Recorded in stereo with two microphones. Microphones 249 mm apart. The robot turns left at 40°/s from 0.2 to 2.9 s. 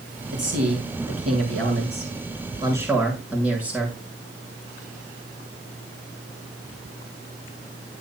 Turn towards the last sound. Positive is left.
turn(degrees=-175)